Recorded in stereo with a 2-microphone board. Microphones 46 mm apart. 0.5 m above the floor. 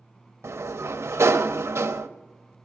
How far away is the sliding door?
About 0.7 m.